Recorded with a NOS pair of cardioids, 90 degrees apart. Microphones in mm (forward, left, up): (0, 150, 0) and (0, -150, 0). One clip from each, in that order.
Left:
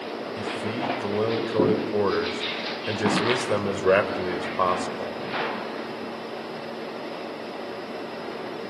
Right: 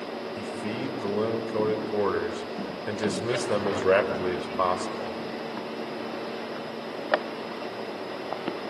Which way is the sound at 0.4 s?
15° left.